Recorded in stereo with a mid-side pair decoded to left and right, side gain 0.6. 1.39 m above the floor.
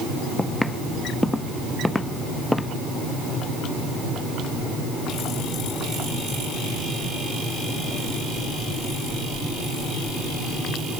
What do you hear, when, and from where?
0.4 s footsteps: 5° left; by 2.7 s 10° left